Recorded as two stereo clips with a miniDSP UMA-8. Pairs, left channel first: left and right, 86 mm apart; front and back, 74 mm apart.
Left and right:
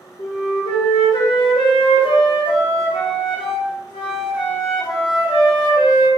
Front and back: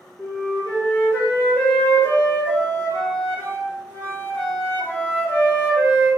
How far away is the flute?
About 0.7 m.